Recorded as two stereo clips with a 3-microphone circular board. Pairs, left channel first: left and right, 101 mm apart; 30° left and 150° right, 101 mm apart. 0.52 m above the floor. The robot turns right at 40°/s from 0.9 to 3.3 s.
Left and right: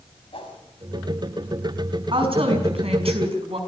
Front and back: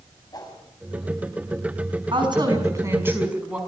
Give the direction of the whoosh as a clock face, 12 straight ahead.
9 o'clock.